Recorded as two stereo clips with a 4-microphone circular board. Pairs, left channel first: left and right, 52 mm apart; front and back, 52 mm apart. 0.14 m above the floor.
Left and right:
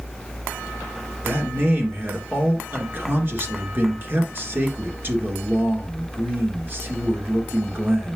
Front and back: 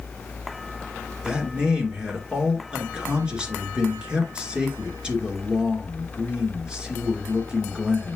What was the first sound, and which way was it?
A man speaking, 115° right.